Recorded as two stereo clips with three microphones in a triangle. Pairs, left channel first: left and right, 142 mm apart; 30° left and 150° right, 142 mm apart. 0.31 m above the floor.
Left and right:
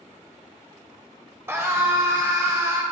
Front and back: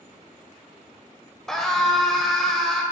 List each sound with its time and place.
1.5 s a scream: 50° right, 0.9 m